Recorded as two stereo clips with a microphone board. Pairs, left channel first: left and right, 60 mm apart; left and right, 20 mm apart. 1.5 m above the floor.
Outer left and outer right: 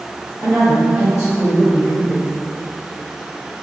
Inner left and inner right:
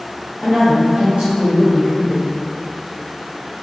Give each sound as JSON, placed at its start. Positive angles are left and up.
{"t": 0.4, "sound": "a woman speaking", "side_deg": -70, "distance_m": 1.5}